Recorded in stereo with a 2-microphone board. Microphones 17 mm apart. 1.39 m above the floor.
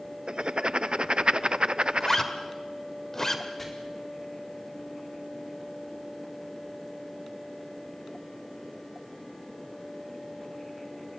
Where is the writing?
60° right (ahead or behind), 0.5 m.